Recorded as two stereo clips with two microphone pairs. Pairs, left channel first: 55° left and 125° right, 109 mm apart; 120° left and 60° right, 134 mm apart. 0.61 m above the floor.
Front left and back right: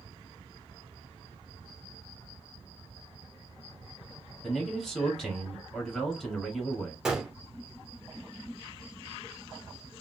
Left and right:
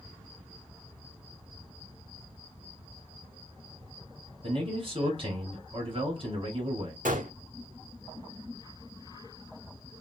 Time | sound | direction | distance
4.4 | a man speaking | 35° right | 1.5 m
7.0 | a gunshot | 45° right | 0.8 m